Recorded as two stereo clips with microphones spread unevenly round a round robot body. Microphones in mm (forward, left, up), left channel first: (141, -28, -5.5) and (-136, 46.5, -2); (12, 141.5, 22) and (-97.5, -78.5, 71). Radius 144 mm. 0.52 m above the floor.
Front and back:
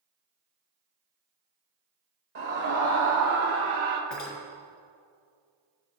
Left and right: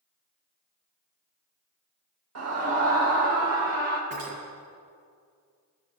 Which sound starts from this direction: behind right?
A scream, at 2.4 s.